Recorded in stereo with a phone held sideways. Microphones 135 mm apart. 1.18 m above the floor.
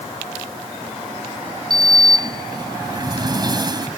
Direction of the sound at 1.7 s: 30° right (ahead or behind).